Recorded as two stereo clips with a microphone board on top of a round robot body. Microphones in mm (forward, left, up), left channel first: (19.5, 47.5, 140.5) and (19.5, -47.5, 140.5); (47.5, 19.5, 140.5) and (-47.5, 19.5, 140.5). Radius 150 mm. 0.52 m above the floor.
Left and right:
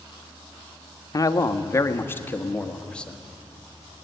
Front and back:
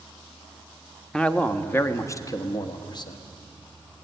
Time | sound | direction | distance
1.1 | a man speaking | 80° left | 1.2 m